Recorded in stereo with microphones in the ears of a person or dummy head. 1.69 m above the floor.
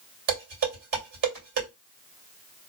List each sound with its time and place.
0.3 s dishes clattering: 55° right (ahead or behind), 2.5 m